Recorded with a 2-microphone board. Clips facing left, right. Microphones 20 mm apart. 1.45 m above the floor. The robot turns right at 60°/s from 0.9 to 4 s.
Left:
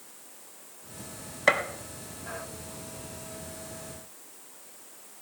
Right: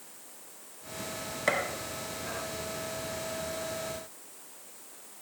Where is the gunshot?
25° left (ahead or behind), 0.9 m; by 1.6 s 20° left (ahead or behind), 0.9 m.